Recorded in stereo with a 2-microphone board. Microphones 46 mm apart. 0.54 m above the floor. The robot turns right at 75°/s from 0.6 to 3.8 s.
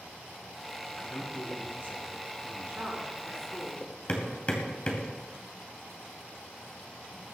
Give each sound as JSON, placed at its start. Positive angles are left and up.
{"t": 0.9, "sound": "a man speaking", "azimuth_deg": 0, "distance_m": 6.0}
{"t": 2.6, "sound": "a woman speaking", "azimuth_deg": -35, "distance_m": 5.0}
{"t": 4.1, "sound": "hammering", "side_deg": 30, "distance_m": 2.5}